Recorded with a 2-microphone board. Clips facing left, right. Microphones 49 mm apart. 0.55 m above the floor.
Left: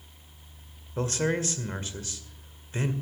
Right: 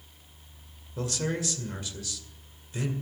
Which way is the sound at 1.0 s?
40° left (ahead or behind).